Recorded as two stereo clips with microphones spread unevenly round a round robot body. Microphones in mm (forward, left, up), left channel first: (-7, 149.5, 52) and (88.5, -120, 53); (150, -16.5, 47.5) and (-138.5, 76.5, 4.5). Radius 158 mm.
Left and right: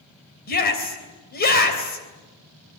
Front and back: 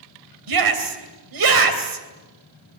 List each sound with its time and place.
0.5 s a shout: 170° left, 3 m